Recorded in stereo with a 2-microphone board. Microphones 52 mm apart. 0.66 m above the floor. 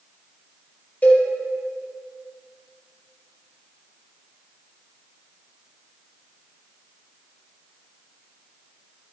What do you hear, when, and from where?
1.0 s a cowbell: 35° left (ahead or behind), 5 m